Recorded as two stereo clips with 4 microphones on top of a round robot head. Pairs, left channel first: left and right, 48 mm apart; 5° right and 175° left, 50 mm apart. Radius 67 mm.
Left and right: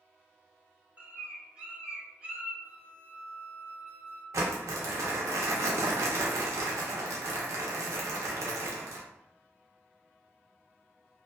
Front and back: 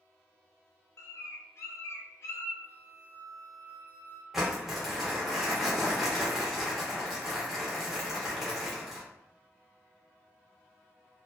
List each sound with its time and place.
1.0 s a bird: 25° right, 0.8 m
2.6 s a flute: 120° right, 0.7 m
4.3 s crumpling: 95° right, 0.6 m